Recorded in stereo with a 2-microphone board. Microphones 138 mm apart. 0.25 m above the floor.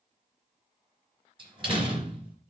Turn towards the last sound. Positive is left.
turn(degrees=-40)  # may be behind; listen again after turning